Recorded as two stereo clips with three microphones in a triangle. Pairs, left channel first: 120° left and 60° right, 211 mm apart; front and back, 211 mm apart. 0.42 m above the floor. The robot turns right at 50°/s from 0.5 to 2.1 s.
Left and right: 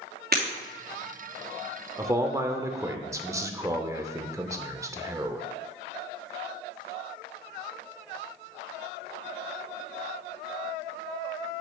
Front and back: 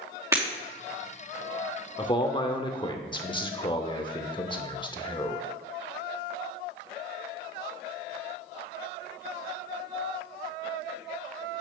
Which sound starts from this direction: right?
Breaking glass, at 0.3 s.